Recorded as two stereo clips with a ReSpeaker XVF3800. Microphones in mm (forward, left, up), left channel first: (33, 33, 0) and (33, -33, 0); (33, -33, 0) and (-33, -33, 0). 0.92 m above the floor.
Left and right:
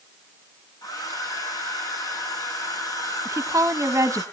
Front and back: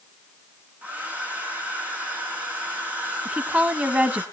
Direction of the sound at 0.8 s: 115° left.